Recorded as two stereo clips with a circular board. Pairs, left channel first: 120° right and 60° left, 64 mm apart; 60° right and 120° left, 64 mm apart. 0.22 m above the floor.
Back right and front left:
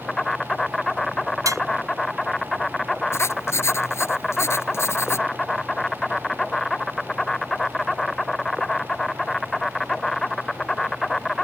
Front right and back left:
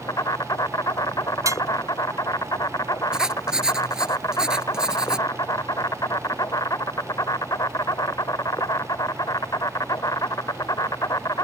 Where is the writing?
160° right.